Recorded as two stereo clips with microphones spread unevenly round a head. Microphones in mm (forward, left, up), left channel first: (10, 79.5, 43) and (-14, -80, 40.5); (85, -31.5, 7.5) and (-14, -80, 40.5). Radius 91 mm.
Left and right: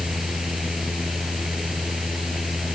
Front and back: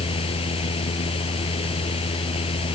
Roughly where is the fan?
Ahead.